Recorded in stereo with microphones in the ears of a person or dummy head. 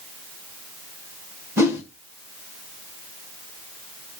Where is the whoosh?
15° right (ahead or behind), 1.6 m.